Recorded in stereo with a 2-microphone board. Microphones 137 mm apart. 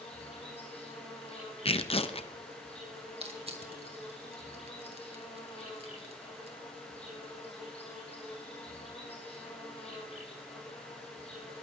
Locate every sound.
0.0 s an insect: 50° left (ahead or behind), 9 m
1.6 s tearing paper: 45° left (ahead or behind), 0.8 m
3.2 s crushing: 45° right (ahead or behind), 2 m